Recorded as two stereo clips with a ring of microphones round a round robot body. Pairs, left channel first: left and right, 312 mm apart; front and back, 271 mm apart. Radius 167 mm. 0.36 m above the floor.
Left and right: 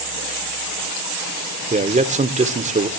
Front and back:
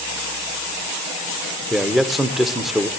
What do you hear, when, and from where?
1.7 s a man speaking: 90° right, 1.0 m